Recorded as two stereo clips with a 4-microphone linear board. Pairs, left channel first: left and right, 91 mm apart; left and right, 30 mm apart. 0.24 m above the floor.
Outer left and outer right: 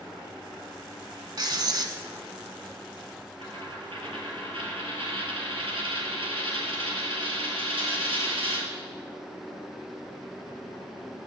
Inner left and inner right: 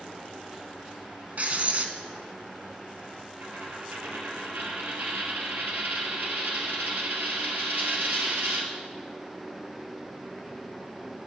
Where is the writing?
50° right (ahead or behind), 1.0 m.